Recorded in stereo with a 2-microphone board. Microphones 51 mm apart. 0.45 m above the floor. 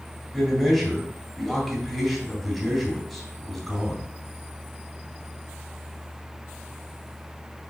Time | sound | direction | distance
0.3 | a man speaking | centre (ahead or behind) | 2.5 m